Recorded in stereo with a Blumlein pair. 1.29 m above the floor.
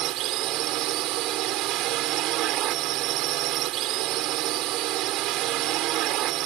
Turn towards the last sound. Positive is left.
turn(degrees=-35)